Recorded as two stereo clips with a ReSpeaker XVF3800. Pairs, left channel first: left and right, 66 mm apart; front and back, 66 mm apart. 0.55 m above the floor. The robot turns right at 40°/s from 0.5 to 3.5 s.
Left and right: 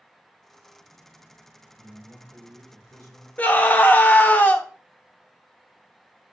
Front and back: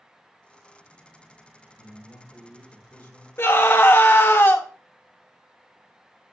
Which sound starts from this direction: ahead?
A man speaking, at 1.8 s.